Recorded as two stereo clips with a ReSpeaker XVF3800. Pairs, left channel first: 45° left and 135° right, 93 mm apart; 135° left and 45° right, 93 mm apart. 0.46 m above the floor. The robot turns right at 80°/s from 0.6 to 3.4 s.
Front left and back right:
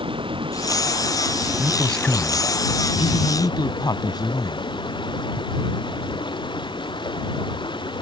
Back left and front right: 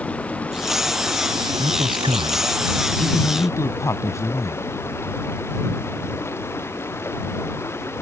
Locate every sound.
0.0 s running water: 150° right; by 8.0 s 75° left
1.6 s a man speaking: 65° right; by 4.7 s 80° left